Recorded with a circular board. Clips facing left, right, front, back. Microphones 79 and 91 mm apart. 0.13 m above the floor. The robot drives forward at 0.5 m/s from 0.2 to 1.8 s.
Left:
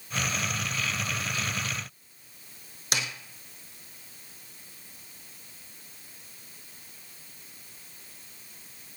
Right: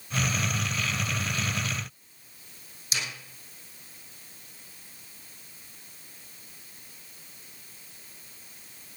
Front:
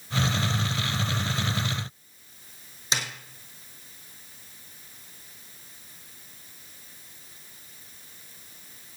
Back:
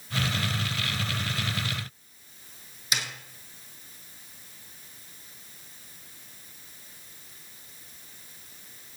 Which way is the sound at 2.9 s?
60° left.